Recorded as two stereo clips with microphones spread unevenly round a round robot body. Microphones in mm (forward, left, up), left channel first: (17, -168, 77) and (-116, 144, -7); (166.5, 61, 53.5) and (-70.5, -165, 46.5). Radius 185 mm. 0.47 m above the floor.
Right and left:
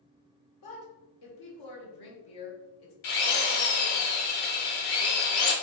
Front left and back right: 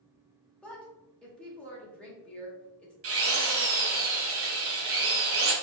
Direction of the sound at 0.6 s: 45° right.